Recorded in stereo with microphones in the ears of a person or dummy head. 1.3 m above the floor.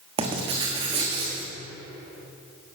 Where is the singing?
No singing in this recording.